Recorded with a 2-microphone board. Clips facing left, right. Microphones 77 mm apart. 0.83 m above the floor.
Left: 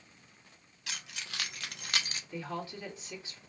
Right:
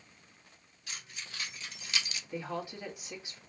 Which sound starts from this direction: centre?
A woman speaking, at 2.3 s.